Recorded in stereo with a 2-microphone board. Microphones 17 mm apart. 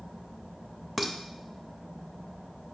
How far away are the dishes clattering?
About 0.8 m.